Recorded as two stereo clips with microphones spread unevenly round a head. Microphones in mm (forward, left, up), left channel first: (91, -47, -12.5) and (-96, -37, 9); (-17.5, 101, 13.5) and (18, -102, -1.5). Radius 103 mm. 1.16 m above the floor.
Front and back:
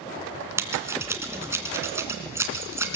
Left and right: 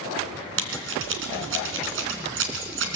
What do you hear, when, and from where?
0.6 s scissors: 110° right, 3 m